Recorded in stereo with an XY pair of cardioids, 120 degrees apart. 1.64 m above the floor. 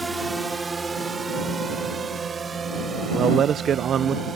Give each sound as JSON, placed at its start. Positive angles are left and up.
{"t": 0.0, "sound": "a drone", "azimuth_deg": -15}
{"t": 3.1, "sound": "a man speaking", "azimuth_deg": -50}